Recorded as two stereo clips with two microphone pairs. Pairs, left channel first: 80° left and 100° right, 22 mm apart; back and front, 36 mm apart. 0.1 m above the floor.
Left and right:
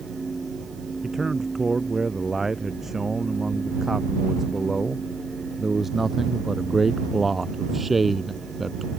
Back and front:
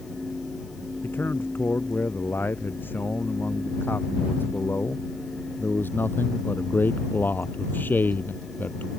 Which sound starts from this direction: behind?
A man speaking, at 1.0 s.